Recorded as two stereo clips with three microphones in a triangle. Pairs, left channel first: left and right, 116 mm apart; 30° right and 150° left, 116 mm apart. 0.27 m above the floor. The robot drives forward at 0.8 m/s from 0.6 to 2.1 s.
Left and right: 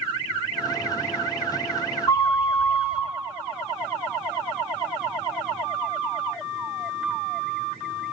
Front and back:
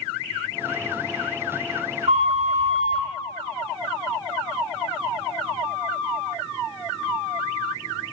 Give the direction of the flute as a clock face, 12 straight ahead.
7 o'clock.